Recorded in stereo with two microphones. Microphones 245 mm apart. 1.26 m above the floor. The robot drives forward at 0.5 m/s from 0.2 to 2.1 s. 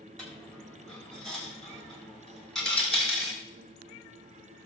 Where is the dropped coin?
5° left (ahead or behind), 3 m; by 3.4 s centre (ahead or behind), 4 m.